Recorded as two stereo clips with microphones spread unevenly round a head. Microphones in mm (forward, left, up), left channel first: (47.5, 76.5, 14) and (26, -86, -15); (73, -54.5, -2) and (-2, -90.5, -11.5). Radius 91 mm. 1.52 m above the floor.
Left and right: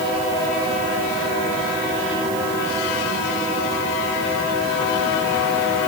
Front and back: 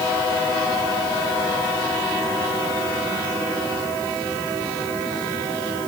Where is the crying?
No crying in this recording.